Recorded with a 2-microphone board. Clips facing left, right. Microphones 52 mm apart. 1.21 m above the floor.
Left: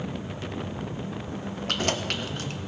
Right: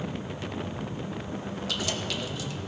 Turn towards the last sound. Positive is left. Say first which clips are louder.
# left 5 dB
turn(degrees=50)  # may be behind; listen again after turning